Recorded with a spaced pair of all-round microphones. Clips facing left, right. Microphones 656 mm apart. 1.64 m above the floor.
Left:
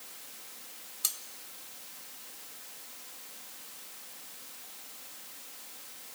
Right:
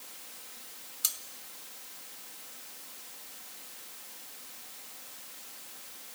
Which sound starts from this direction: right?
Cutlery clinking, at 1.0 s.